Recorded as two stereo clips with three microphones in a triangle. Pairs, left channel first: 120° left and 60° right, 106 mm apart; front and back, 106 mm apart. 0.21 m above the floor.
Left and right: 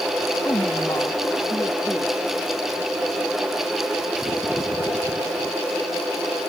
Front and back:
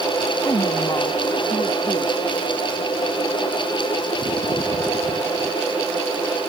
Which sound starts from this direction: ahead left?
A woman speaking, at 0.4 s.